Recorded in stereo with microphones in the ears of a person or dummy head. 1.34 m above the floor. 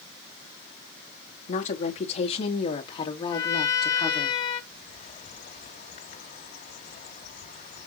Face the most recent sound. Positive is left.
turn(degrees=45)  # may be behind; listen again after turning